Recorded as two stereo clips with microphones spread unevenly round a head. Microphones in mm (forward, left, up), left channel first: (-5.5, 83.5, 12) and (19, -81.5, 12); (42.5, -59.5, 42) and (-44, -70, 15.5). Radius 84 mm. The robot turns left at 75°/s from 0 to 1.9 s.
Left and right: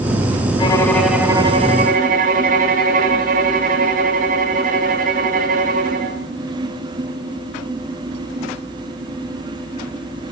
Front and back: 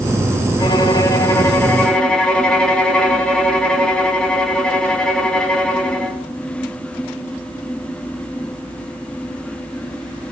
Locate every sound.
0.6 s a violin: 40° left, 2.5 m; by 6.2 s 60° right, 2.5 m